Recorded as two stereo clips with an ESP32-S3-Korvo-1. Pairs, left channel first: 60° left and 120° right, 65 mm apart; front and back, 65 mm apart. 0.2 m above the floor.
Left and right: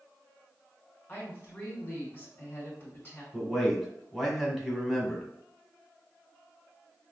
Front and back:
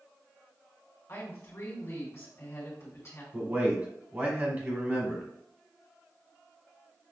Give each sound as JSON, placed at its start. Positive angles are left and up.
{"t": 1.1, "sound": "a woman speaking", "azimuth_deg": 10, "distance_m": 2.0}
{"t": 3.3, "sound": "a man speaking", "azimuth_deg": 155, "distance_m": 1.1}